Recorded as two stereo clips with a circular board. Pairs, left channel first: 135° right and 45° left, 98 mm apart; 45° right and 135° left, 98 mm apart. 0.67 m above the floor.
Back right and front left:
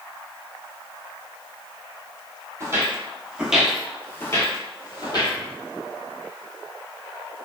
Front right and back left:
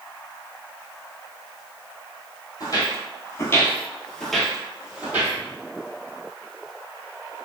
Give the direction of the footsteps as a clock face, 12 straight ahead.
12 o'clock.